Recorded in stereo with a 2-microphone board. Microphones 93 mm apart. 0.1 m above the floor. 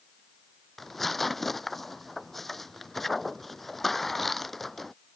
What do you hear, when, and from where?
0.8 s tearing paper: centre (ahead or behind)